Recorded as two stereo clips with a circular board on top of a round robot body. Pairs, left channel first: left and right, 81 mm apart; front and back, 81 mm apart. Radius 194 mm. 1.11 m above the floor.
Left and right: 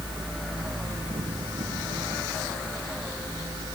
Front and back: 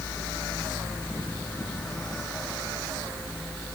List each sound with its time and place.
Only background noise.